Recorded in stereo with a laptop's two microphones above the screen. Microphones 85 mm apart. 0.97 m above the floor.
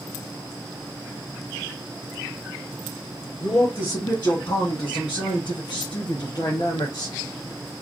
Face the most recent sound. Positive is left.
turn(degrees=40)  # may be behind; listen again after turning